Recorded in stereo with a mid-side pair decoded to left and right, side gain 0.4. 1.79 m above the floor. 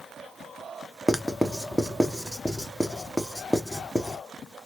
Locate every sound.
1.1 s writing: 10° left, 0.8 m